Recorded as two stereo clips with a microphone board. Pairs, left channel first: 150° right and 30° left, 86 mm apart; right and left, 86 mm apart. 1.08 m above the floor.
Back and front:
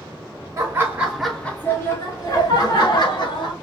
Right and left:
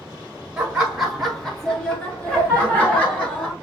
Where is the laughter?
15° left, 0.7 m; by 3.5 s 165° right, 1.3 m.